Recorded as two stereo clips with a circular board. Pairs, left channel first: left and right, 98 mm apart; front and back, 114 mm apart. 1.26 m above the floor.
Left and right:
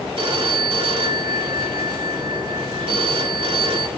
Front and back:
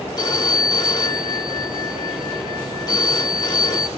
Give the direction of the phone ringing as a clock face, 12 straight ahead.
2 o'clock.